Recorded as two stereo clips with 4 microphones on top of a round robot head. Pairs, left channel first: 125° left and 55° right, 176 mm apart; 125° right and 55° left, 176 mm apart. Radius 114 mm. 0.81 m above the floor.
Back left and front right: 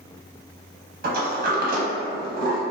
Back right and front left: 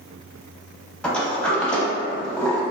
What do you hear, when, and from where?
1.0 s a sliding door: 40° right, 0.7 m